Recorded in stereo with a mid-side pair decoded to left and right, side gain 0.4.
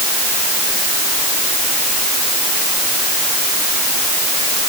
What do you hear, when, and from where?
Only background noise.